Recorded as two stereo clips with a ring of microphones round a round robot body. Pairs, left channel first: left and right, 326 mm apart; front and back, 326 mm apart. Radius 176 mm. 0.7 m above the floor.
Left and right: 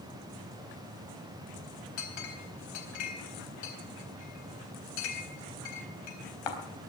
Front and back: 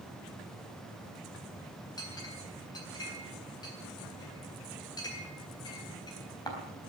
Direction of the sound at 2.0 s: 80° left.